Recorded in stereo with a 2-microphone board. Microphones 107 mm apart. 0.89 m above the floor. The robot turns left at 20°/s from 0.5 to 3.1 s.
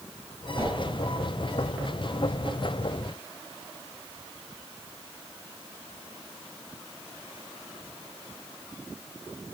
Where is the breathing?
No breathing in this recording.